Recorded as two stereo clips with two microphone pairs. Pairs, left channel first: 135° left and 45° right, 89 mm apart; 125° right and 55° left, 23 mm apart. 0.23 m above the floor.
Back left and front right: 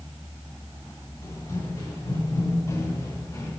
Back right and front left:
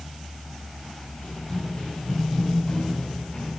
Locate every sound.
1.2 s running footsteps: 165° right, 7 m